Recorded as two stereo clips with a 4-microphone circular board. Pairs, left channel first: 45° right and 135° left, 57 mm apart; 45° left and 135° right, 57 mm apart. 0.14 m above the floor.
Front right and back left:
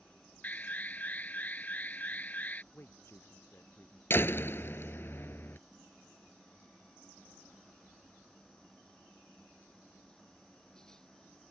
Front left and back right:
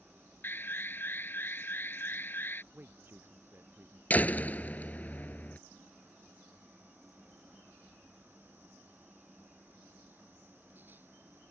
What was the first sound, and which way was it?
An alarm, 5° left.